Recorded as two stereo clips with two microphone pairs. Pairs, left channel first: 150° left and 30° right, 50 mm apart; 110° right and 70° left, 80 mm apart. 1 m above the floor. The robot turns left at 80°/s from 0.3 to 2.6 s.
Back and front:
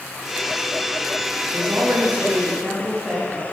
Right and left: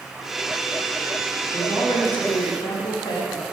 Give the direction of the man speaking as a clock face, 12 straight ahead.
1 o'clock.